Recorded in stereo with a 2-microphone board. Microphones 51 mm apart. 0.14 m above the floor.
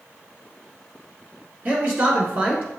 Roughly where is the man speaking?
Right.